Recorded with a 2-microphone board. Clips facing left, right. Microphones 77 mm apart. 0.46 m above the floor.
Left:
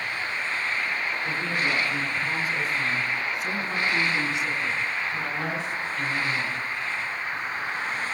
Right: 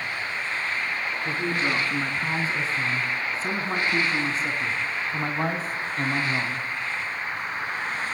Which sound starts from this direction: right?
A man speaking, at 1.2 s.